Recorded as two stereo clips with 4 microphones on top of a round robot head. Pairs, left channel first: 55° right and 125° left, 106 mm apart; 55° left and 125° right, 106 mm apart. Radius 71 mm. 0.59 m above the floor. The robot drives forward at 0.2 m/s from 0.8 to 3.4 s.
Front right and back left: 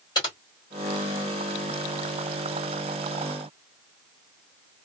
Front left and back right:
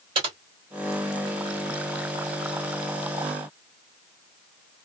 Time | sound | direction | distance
0.1 | typing on a keyboard | 95° right | 2.5 m